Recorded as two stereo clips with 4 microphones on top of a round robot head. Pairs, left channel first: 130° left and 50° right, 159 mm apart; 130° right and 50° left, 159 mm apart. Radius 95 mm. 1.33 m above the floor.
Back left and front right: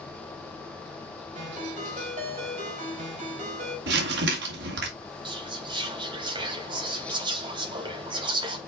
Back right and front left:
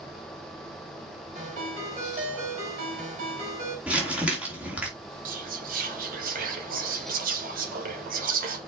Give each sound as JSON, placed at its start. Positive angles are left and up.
{"t": 1.4, "sound": "a ringtone", "azimuth_deg": 0, "distance_m": 4.5}
{"t": 3.9, "sound": "crumpling", "azimuth_deg": -35, "distance_m": 2.5}
{"t": 5.2, "sound": "whispering", "azimuth_deg": 15, "distance_m": 2.5}